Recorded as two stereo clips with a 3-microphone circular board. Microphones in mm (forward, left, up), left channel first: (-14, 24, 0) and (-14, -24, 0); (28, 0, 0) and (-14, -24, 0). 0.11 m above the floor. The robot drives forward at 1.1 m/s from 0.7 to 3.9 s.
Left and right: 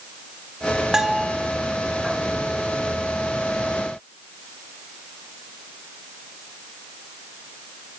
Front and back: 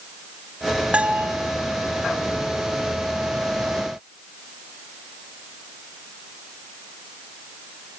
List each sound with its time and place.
0.9 s a bell: 150° right, 1.2 m; by 1.3 s 165° right, 1.4 m